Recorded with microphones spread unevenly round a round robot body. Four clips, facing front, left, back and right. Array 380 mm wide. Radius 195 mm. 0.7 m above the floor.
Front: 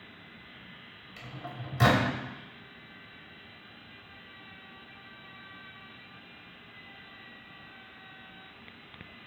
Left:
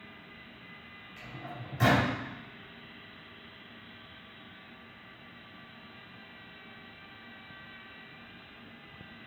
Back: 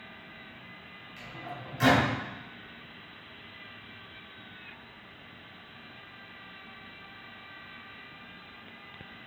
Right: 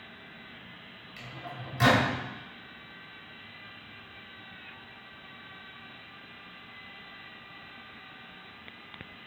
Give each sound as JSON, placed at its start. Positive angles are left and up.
{"t": 1.2, "sound": "a microwave", "azimuth_deg": -15, "distance_m": 3.0}